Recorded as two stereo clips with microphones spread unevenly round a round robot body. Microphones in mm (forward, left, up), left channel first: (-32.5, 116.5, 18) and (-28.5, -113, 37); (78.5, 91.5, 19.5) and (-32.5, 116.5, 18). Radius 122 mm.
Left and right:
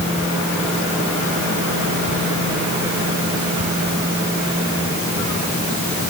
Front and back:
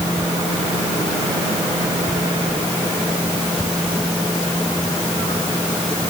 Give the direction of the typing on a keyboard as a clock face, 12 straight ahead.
No typing on a keyboard in this recording.